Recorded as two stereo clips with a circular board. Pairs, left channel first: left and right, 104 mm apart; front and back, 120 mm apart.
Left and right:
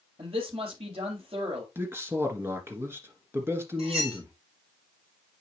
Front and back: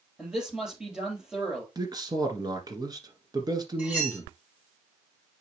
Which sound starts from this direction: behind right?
A man speaking, at 1.8 s.